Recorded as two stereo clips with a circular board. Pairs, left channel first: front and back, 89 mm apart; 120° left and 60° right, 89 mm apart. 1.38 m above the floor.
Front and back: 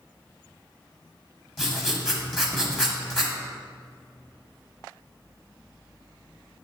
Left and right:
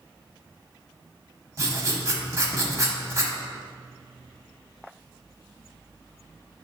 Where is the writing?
85° right, 1.0 m.